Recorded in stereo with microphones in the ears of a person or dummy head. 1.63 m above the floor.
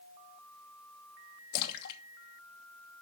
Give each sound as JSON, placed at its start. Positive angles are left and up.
{"t": 1.5, "sound": "a splash", "side_deg": 55, "distance_m": 1.1}